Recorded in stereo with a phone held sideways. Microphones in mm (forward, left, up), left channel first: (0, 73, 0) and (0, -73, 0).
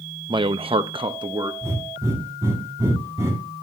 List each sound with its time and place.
0.3 s a man speaking: 30° right (ahead or behind), 0.7 m
1.6 s breathing: 20° right (ahead or behind), 6 m